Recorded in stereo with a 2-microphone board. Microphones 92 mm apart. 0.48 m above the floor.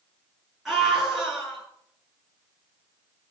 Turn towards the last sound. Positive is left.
turn(degrees=-5)  # may be behind; listen again after turning